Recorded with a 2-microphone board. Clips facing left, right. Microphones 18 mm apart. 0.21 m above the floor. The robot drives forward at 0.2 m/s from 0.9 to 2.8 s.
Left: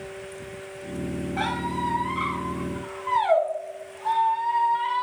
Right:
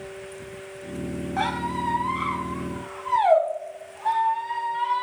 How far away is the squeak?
About 1.4 m.